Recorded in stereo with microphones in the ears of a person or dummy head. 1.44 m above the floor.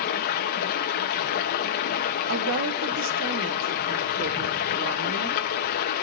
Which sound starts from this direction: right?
A woman speaking, at 2.3 s.